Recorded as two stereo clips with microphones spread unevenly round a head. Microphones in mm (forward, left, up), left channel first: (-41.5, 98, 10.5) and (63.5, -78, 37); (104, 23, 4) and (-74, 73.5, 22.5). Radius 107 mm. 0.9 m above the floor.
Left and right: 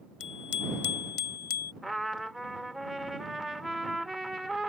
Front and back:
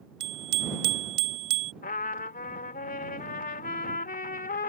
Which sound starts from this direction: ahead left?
A trumpet, at 1.8 s.